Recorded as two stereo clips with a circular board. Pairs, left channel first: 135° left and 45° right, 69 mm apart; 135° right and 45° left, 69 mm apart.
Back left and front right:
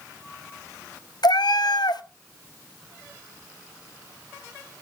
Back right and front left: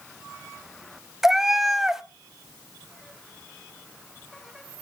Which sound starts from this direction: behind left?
A cat meowing, at 1.2 s.